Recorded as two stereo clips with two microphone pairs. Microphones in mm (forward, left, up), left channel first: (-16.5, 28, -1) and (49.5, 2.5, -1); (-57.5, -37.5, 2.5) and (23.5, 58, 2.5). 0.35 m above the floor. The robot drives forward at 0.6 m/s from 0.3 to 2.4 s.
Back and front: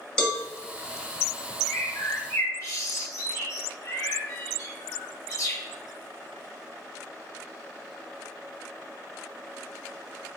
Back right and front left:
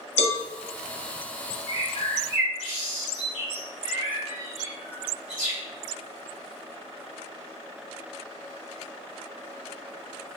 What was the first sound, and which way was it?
A cowbell, 120° right.